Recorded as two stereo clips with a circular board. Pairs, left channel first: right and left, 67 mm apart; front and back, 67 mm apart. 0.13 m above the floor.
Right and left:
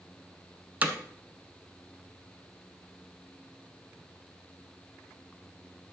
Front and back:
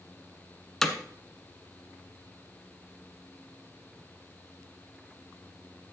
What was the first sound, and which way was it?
Hammering, 75° left.